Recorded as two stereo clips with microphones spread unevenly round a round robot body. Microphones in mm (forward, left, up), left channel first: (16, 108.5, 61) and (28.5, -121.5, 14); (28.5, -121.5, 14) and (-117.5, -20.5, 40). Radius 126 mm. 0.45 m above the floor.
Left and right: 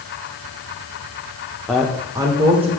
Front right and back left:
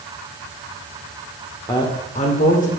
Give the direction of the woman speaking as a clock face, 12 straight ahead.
12 o'clock.